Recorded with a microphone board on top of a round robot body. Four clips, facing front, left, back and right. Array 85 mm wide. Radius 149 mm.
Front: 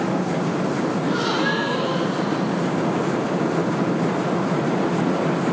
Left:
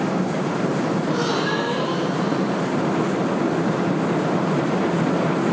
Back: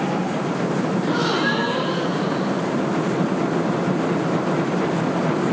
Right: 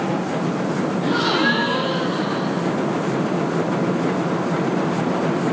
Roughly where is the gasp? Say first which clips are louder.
Right 3 dB, back 1 dB; right.